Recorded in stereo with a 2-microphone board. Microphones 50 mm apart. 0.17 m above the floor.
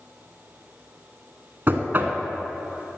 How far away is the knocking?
About 1.0 m.